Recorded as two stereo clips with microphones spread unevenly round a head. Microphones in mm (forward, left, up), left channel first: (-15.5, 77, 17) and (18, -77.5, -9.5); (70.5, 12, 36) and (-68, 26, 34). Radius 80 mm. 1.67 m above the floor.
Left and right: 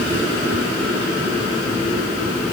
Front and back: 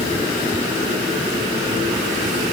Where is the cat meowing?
No cat meowing in this recording.